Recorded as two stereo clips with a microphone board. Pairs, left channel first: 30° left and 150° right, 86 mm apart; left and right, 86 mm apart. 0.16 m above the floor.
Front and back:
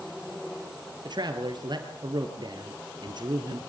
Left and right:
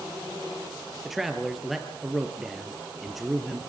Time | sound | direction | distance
1.1 | a man speaking | 175° right | 3 m